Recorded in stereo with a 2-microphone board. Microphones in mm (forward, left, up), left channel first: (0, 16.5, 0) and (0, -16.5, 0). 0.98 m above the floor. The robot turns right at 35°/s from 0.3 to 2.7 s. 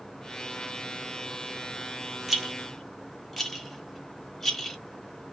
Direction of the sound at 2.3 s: 10° right (ahead or behind).